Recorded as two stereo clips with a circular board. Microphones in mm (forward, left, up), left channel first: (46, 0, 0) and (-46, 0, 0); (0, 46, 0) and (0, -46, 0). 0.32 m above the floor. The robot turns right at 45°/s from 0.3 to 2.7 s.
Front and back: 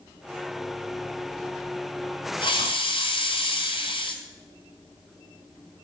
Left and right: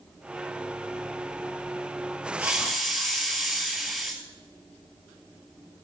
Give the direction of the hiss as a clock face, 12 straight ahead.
1 o'clock.